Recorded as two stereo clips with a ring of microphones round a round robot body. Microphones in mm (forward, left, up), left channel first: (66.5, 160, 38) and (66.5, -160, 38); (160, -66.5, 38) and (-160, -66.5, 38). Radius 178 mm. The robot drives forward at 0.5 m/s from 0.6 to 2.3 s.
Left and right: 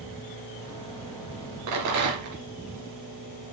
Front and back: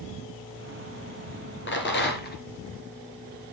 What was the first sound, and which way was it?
A rattle, 55° right.